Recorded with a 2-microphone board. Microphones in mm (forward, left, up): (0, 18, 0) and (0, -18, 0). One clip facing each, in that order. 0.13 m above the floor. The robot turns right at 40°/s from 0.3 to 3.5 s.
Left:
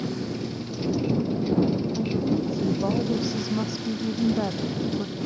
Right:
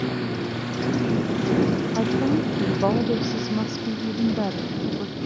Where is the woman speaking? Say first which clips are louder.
Right 3 dB; 65° right; by 5.2 s straight ahead.